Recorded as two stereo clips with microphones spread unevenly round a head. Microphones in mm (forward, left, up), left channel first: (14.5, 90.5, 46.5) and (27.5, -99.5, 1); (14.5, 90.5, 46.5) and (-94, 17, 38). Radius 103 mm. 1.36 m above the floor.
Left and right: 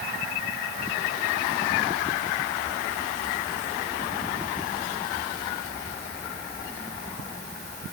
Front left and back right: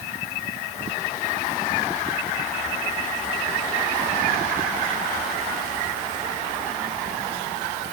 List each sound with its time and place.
Only background noise.